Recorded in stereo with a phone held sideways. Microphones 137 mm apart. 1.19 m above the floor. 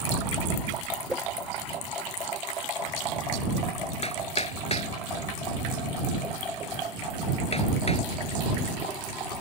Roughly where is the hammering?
Left.